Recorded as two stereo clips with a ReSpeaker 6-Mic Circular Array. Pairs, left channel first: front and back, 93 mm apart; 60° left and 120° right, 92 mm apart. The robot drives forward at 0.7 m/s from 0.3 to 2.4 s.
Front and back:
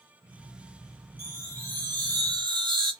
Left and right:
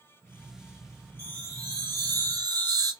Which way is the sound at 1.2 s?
160° right.